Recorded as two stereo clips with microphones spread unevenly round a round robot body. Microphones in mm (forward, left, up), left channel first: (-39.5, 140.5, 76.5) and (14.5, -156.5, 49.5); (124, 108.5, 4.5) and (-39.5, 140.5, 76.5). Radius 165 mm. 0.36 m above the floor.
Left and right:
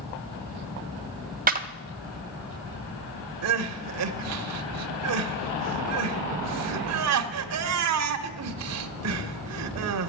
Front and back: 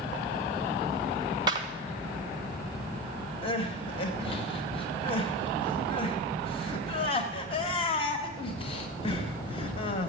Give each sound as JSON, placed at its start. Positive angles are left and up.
{"t": 1.5, "sound": "a clap", "azimuth_deg": -100, "distance_m": 1.0}
{"t": 3.4, "sound": "crying", "azimuth_deg": -50, "distance_m": 0.9}